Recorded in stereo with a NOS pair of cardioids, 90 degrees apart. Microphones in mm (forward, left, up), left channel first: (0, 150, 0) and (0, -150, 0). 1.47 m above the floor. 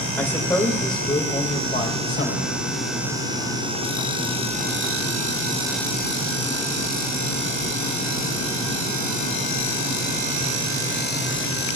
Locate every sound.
0.2 s a man speaking: 5° left, 2 m; by 2.5 s 40° left, 2 m